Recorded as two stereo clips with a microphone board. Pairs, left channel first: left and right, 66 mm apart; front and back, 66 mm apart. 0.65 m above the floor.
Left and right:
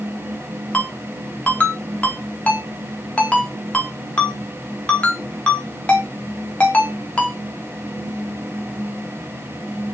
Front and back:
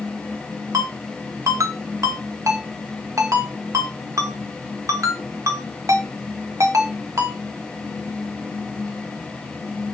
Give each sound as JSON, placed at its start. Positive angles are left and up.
{"t": 0.7, "sound": "a ringtone", "azimuth_deg": 155, "distance_m": 0.7}